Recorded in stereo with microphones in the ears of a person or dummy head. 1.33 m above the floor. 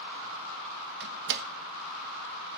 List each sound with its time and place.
1.0 s a door slam: 55° right (ahead or behind), 1.0 m